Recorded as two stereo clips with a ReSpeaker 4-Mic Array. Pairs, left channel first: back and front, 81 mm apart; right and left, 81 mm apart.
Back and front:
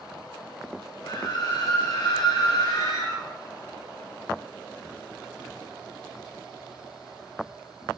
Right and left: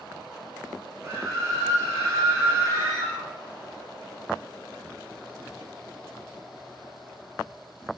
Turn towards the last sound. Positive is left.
turn(degrees=140)